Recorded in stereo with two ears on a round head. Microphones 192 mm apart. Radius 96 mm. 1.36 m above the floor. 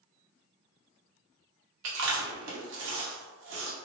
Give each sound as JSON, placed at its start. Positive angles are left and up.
{"t": 1.8, "sound": "chewing", "side_deg": -60, "distance_m": 0.9}